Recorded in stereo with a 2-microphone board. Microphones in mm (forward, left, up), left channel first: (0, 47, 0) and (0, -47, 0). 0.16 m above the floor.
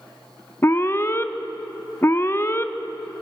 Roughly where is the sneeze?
I don't hear a sneeze.